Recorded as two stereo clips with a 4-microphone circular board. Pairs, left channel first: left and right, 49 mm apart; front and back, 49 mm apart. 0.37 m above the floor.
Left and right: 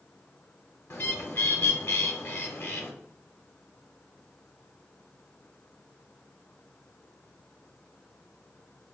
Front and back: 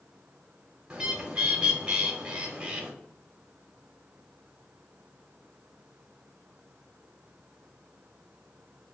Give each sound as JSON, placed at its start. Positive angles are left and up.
{"t": 0.9, "sound": "a bird", "azimuth_deg": 115, "distance_m": 0.7}